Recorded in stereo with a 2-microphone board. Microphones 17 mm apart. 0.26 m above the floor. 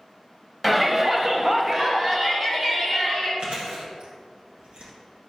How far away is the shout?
About 1.1 m.